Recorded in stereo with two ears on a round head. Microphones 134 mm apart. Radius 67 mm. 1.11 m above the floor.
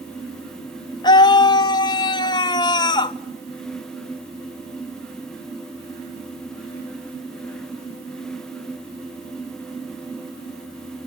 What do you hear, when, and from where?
1.0 s a scream: 30° left (ahead or behind), 1.0 m